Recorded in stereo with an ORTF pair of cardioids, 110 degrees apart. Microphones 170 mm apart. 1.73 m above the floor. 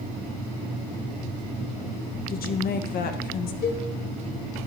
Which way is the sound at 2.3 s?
65° left.